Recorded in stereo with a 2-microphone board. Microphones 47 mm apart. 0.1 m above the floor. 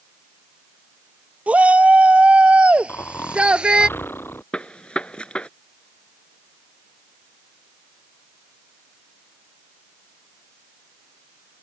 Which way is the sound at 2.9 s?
55° left (ahead or behind).